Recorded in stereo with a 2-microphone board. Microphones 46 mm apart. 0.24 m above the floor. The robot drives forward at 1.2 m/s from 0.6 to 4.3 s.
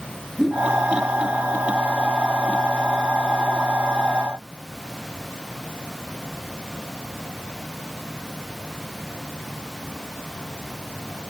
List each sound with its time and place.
0.4 s a whoosh: 5° left (ahead or behind), 2.5 m